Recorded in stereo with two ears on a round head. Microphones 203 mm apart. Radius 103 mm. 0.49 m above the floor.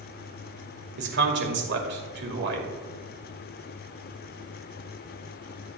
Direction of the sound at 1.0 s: 55° right (ahead or behind).